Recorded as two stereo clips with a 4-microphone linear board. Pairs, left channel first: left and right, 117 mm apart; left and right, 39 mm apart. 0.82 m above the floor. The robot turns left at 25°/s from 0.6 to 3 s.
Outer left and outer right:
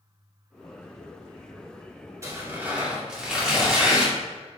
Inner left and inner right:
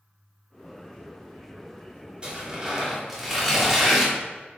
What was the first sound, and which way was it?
Tearing paper, 25° right (ahead or behind).